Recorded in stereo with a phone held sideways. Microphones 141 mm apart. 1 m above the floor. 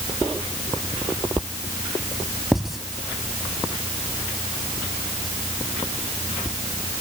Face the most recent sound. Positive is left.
turn(degrees=0)  # may be behind; listen again after turning